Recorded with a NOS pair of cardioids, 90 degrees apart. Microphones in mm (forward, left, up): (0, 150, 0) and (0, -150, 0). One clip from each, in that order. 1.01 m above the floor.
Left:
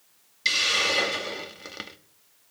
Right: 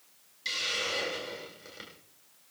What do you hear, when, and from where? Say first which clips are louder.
0.5 s a hiss: left 9 dB; 65° left, 1.4 m